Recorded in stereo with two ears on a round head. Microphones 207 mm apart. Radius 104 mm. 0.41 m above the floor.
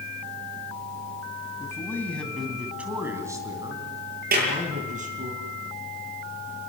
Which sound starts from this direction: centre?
A man speaking, at 1.6 s.